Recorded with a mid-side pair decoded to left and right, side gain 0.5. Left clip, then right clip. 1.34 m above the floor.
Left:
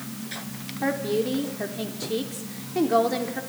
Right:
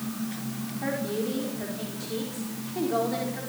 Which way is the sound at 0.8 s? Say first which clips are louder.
Left 5 dB; 40° left.